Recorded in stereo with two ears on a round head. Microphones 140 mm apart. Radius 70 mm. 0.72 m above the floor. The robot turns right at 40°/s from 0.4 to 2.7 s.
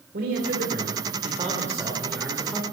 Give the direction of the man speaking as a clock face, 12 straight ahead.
2 o'clock.